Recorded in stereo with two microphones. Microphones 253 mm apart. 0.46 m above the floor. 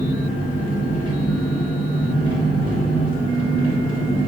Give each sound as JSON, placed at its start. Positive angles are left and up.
{"t": 0.0, "sound": "an engine running", "side_deg": 30, "distance_m": 1.6}